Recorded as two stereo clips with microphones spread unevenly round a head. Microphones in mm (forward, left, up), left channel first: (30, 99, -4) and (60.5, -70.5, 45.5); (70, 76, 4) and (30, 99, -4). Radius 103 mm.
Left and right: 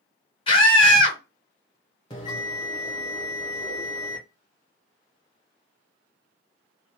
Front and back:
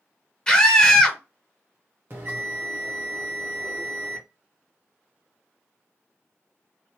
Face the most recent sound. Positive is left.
turn(degrees=180)